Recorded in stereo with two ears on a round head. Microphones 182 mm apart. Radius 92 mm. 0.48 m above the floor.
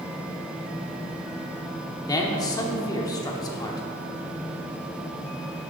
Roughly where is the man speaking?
Centre.